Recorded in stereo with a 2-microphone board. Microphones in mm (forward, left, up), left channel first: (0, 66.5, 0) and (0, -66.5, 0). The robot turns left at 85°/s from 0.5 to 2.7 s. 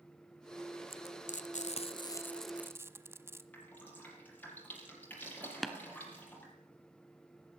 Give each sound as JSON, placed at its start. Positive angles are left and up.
{"t": 0.9, "sound": "frying", "side_deg": 45, "distance_m": 1.1}
{"t": 3.5, "sound": "dripping", "side_deg": 15, "distance_m": 7.0}
{"t": 5.6, "sound": "tapping", "side_deg": 0, "distance_m": 1.4}